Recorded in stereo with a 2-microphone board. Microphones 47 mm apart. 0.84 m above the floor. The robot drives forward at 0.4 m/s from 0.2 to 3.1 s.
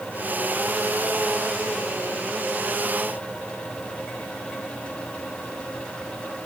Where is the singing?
I don't hear singing.